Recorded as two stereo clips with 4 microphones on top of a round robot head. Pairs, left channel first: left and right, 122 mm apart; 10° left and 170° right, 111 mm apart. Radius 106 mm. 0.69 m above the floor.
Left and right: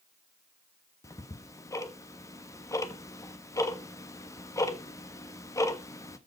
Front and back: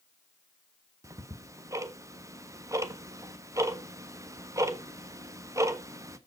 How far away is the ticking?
About 1.3 m.